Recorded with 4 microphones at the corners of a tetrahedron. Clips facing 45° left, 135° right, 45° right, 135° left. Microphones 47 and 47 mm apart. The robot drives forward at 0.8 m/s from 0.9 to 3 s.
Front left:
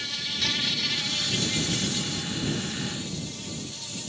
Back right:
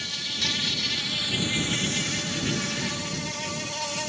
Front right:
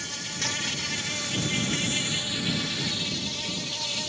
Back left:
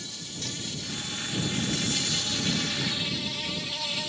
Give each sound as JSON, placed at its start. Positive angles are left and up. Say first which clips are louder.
{"t": 0.0, "sound": "an insect", "louder": "even, front right 6 dB", "azimuth_deg": -45}